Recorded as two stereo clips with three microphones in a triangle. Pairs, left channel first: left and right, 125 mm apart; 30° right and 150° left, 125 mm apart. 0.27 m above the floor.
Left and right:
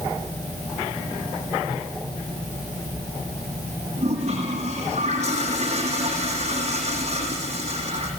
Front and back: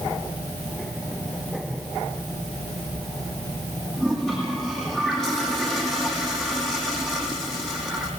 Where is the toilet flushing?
120° right, 6.5 m.